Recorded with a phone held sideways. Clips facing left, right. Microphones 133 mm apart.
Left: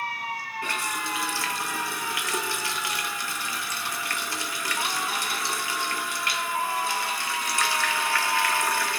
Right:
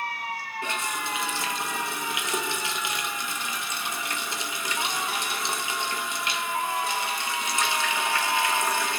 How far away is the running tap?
About 0.8 m.